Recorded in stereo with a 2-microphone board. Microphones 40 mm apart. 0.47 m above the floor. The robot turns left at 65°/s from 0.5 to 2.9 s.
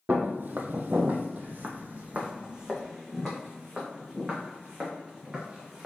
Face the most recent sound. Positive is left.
turn(degrees=-25)  # may be behind; listen again after turning